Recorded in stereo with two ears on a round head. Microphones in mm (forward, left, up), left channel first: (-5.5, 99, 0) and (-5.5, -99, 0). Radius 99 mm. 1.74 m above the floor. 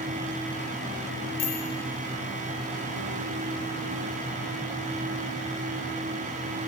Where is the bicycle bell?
40° left (ahead or behind), 3 m.